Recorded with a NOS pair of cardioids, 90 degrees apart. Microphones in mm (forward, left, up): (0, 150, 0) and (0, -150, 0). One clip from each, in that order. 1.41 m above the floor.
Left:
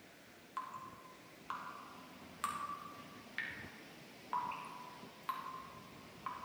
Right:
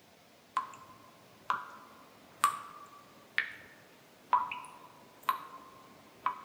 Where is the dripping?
65° right, 0.7 m.